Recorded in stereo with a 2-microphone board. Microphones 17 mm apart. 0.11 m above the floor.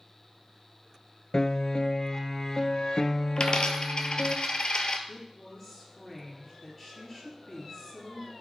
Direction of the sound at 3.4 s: 60° left (ahead or behind).